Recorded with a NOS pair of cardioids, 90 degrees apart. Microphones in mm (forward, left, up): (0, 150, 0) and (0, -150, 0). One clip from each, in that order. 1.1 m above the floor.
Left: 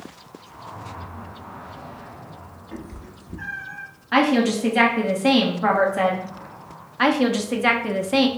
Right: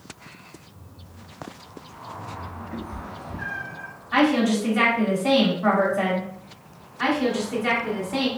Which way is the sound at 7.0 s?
50° left.